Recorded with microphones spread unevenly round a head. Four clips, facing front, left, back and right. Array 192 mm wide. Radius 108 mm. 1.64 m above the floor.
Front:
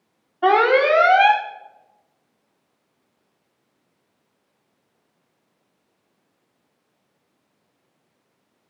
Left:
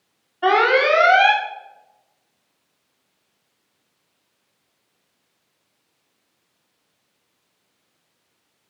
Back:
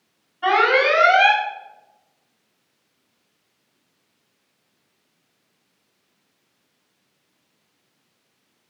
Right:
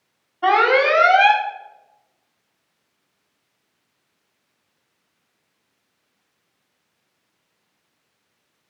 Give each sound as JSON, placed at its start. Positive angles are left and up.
{"t": 0.4, "sound": "an alarm", "azimuth_deg": 5, "distance_m": 1.0}